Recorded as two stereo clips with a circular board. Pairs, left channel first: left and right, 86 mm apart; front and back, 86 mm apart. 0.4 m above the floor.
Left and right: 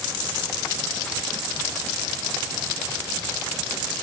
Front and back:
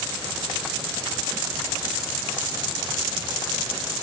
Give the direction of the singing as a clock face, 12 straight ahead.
I don't hear singing.